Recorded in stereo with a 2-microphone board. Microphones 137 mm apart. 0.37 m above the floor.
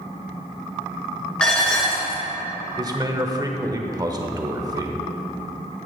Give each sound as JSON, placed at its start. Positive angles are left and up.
{"t": 1.4, "sound": "dishes clattering", "side_deg": 5, "distance_m": 2.5}
{"t": 2.8, "sound": "a man speaking", "side_deg": -25, "distance_m": 0.8}